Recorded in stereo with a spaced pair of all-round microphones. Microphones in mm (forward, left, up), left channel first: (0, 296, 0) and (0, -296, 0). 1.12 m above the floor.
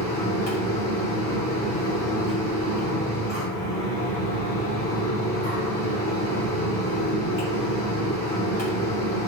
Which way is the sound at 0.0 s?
30° right (ahead or behind).